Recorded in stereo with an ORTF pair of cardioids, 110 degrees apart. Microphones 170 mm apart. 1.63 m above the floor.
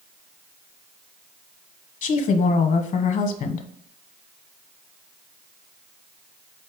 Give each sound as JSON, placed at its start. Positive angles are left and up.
{"t": 2.0, "sound": "a woman speaking", "azimuth_deg": 55, "distance_m": 1.1}